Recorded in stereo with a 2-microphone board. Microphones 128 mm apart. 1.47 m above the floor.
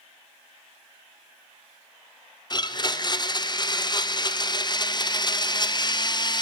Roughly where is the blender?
Left.